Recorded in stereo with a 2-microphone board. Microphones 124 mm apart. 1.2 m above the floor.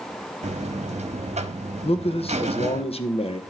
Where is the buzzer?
65° right (ahead or behind), 1.0 m.